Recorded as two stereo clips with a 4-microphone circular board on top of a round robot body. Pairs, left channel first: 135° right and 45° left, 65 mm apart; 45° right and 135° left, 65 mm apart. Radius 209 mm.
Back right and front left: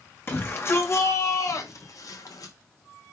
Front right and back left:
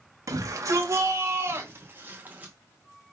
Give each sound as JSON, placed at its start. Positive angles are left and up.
{"t": 0.3, "sound": "a shout", "azimuth_deg": 170, "distance_m": 3.5}